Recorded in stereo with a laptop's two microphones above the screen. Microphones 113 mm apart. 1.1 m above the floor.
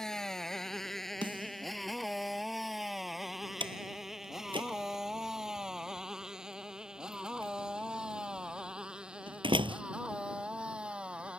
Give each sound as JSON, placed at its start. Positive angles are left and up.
{"t": 0.0, "sound": "a motorcycle", "side_deg": 5}
{"t": 1.2, "sound": "a snare drum", "side_deg": -45}
{"t": 3.6, "sound": "a door slam", "side_deg": -45}